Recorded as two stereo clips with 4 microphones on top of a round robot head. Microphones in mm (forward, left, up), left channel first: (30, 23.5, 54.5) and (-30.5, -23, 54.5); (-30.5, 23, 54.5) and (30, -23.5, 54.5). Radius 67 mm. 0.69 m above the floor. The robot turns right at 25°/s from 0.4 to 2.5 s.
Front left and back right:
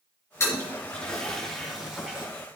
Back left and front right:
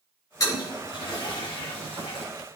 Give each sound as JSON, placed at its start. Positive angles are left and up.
{"t": 0.4, "sound": "a toilet flushing", "azimuth_deg": 95, "distance_m": 3.5}